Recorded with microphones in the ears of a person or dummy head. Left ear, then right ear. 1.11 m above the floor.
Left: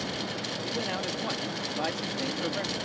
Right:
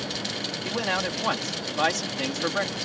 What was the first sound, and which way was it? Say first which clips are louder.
A man speaking: right 6 dB; 50° right (ahead or behind).